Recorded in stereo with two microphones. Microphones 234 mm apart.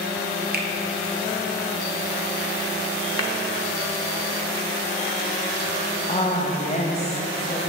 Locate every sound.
0.5 s a finger snap: 40° right (ahead or behind), 0.8 m
3.2 s a clap: 65° left (ahead or behind), 0.8 m
6.1 s a woman speaking: 30° left (ahead or behind), 1.1 m